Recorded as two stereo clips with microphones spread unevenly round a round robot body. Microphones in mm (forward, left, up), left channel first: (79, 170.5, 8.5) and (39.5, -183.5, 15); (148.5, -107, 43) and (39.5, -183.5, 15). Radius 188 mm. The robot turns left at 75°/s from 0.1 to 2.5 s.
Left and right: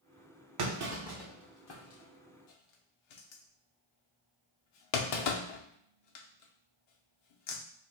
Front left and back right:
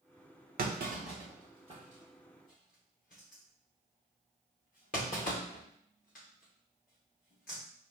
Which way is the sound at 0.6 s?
140° right.